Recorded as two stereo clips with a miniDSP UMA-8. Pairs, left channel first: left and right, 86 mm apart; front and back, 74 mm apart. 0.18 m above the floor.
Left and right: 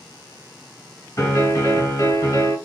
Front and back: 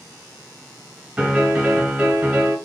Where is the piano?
115° left, 1.4 m.